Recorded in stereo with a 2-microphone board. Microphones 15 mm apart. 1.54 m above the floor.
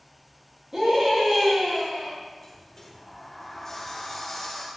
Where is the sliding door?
20° left (ahead or behind), 2.0 m.